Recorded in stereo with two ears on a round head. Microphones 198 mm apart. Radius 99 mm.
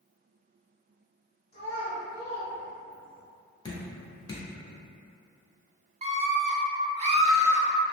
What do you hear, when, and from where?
1.5 s a child speaking: 30° left (ahead or behind), 1.1 m; by 3.2 s 35° right (ahead or behind), 0.8 m
3.6 s dripping: 20° left (ahead or behind), 0.8 m
6.0 s a scream: 30° right (ahead or behind), 0.9 m